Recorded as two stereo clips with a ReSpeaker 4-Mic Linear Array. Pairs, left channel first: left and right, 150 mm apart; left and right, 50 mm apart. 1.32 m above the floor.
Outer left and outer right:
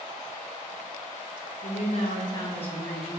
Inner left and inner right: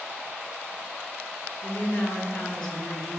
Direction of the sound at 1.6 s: 60° left (ahead or behind).